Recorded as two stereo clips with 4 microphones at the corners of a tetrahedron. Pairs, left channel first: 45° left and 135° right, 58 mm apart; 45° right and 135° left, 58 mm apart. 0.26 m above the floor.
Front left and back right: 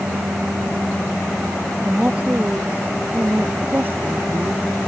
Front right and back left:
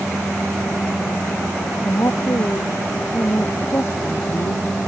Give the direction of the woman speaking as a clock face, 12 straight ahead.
2 o'clock.